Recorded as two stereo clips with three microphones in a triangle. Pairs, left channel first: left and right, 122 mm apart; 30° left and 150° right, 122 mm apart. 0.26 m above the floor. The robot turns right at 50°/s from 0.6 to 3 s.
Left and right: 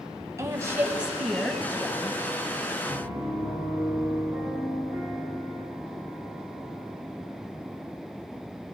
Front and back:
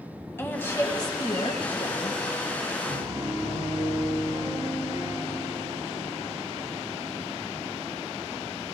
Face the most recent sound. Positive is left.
turn(degrees=-150)